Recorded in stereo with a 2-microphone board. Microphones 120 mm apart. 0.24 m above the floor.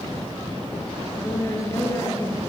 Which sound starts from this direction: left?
A woman speaking, at 1.1 s.